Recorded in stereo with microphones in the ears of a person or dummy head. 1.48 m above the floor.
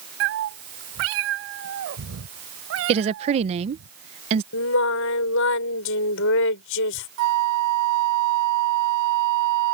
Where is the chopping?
No chopping in this recording.